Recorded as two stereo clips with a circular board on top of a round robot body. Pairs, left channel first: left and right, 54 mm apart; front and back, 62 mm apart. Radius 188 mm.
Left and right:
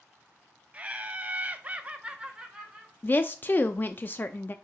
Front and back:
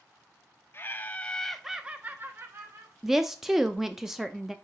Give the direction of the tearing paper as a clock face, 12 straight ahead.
I don't hear tearing paper.